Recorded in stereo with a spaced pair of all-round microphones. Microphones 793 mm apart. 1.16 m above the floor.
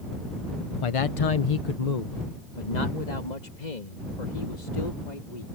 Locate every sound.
0.8 s a man speaking: 40° left (ahead or behind); by 5.5 s 60° left (ahead or behind)